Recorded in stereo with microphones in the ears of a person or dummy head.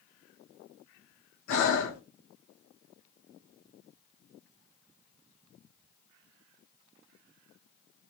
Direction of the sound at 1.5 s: 65° left (ahead or behind).